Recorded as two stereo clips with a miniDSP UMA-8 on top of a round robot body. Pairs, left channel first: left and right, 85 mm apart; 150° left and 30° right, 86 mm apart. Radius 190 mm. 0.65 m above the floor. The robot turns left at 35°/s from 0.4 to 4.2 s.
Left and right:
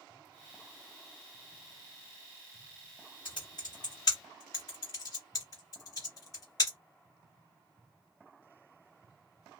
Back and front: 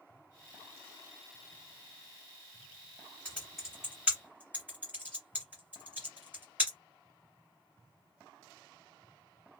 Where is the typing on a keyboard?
75° left, 0.5 m; by 6.8 s 45° left, 0.5 m.